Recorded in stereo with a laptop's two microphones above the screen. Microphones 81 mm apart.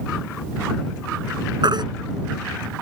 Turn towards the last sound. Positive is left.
turn(degrees=-70)  # may be behind; listen again after turning